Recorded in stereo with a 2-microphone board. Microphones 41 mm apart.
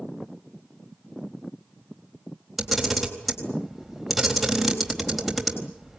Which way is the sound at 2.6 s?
Centre (ahead or behind).